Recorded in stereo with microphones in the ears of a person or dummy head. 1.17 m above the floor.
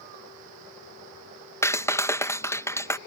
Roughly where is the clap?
Centre.